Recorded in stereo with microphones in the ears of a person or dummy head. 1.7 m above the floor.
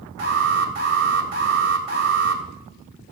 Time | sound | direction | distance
0.2 | an alarm | 55° right (ahead or behind) | 3 m